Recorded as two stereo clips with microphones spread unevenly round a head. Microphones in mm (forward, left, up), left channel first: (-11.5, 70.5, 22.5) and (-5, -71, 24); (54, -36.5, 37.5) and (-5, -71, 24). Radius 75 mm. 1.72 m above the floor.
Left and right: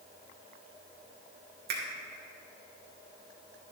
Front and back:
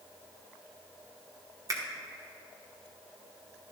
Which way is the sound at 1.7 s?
105° right.